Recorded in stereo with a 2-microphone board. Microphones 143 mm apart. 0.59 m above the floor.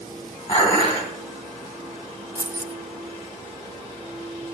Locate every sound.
0.5 s dishes clattering: 40° left (ahead or behind), 3.5 m
2.4 s keys jangling: 15° right (ahead or behind), 0.8 m